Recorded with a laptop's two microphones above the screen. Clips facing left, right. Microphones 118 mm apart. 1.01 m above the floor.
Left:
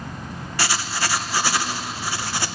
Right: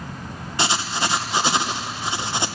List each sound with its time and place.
0.6 s writing: 20° right (ahead or behind), 0.6 m